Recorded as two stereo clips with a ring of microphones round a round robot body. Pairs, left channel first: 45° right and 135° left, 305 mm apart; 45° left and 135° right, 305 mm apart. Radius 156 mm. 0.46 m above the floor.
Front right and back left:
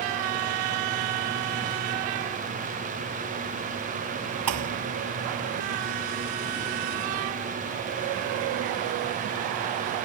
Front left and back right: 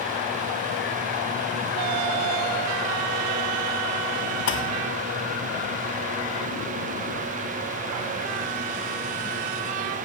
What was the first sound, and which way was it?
A thud, 95° left.